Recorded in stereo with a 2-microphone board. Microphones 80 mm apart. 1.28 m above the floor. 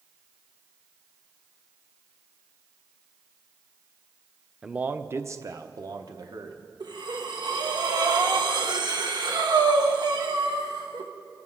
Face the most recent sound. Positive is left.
turn(degrees=-65)  # may be behind; listen again after turning